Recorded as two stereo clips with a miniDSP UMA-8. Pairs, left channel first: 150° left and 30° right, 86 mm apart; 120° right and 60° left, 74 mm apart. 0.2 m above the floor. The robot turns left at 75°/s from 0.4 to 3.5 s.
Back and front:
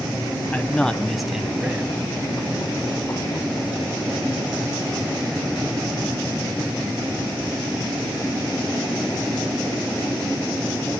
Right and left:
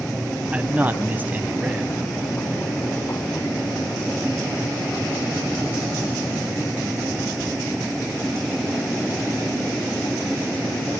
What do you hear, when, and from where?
0.5 s a man speaking: 105° left, 1.2 m; by 1.9 s straight ahead, 1.2 m